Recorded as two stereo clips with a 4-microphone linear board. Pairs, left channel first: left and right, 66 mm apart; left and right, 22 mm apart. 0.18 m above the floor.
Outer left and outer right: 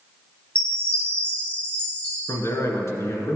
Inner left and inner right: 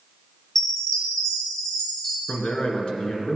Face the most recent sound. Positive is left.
turn(degrees=50)  # may be behind; listen again after turning